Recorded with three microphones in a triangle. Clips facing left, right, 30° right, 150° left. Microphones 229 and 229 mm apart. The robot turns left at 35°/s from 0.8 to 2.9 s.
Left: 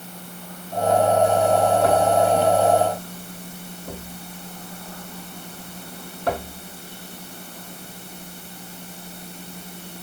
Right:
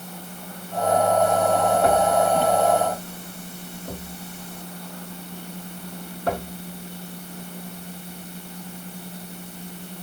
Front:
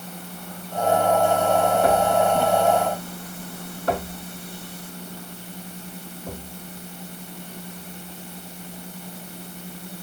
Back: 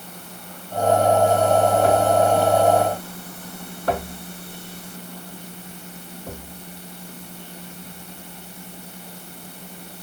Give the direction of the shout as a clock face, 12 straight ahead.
No shout in this recording.